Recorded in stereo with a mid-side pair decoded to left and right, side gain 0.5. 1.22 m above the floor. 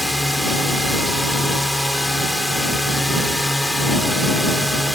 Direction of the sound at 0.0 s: 5° left.